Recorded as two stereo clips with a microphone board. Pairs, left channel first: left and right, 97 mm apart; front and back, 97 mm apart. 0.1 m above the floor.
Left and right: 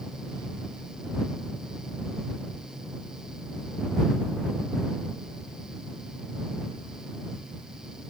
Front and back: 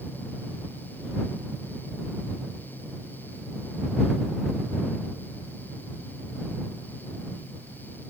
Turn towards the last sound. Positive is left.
No sound to turn to.